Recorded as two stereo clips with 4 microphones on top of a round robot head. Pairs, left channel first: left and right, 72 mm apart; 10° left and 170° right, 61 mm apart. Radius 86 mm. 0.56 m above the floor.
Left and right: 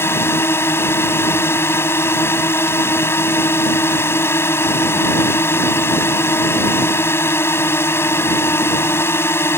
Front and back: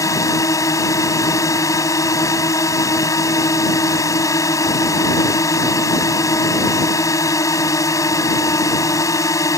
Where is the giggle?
I don't hear a giggle.